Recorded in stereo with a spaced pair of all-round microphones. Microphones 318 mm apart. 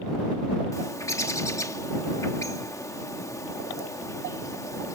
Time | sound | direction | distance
0.7 | a bird | 10° left (ahead or behind) | ?